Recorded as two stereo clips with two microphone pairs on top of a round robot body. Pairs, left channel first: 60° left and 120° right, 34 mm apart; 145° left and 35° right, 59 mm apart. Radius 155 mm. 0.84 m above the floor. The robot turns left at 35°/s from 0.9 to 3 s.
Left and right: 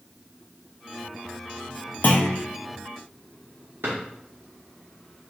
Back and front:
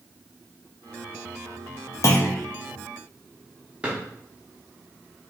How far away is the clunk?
About 0.5 m.